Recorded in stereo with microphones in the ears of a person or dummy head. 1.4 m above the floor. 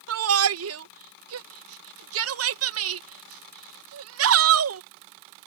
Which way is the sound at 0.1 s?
75° right (ahead or behind).